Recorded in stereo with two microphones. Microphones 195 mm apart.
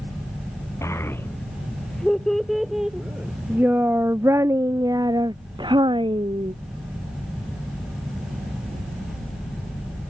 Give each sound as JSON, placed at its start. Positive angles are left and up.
{"t": 0.8, "sound": "a child speaking", "side_deg": 15}